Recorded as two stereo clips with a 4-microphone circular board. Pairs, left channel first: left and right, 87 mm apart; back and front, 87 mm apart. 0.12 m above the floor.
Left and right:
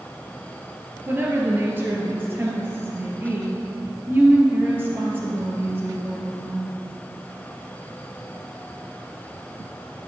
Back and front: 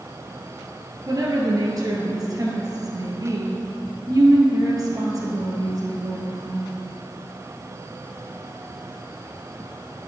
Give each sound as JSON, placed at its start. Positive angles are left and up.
{"t": 1.1, "sound": "a woman speaking", "azimuth_deg": -30, "distance_m": 2.0}